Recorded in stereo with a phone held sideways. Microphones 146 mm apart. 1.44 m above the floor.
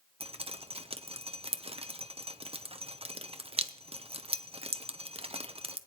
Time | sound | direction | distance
0.2 | dripping | 40° right (ahead or behind) | 0.7 m